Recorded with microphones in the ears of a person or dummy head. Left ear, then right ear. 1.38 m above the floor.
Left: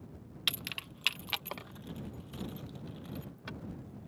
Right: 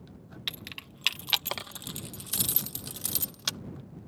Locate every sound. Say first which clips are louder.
0.5 s keys jangling: left 3 dB; 15° left (ahead or behind); by 3.6 s 70° right (ahead or behind)